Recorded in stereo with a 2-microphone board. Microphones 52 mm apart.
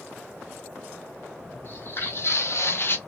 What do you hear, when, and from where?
1.6 s footsteps: 45° left (ahead or behind), 1.7 m; by 3.0 s 40° left (ahead or behind), 0.8 m